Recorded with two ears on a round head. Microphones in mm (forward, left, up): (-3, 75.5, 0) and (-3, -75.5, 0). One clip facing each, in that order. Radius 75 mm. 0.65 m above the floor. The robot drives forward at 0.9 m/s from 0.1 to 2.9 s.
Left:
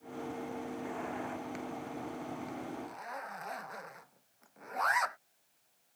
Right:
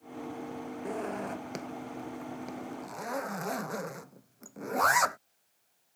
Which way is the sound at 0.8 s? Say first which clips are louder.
Right 4 dB; 45° right (ahead or behind).